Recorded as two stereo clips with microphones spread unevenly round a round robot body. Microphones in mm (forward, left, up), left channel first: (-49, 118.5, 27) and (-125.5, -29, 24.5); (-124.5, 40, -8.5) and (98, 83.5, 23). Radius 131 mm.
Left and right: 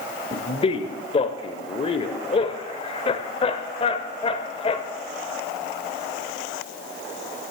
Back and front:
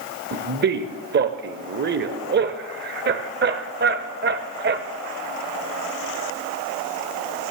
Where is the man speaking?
30° left, 1.0 m.